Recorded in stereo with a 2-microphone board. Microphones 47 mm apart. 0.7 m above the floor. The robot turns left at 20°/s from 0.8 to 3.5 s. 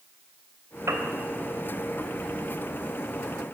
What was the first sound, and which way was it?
A piano, 70° right (ahead or behind).